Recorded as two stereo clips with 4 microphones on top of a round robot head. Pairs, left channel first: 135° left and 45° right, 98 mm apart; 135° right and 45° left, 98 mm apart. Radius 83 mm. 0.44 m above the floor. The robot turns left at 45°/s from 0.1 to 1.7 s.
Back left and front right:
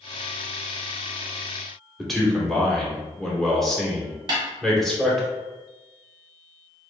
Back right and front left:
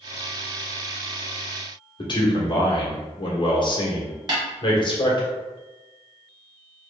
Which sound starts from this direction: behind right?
A man speaking, at 2.0 s.